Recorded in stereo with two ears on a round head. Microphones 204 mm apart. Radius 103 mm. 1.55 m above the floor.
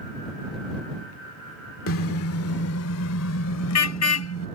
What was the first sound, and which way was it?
A car horn, 65° left (ahead or behind).